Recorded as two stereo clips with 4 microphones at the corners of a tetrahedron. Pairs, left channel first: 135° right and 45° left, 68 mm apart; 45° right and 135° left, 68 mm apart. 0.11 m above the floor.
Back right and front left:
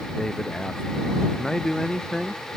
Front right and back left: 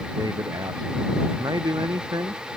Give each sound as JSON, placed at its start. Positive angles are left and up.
{"t": 0.2, "sound": "a man speaking", "azimuth_deg": 145}